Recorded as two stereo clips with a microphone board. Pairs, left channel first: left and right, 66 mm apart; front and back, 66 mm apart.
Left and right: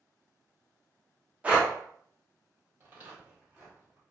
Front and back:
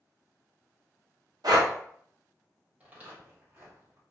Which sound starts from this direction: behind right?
Footsteps, at 2.8 s.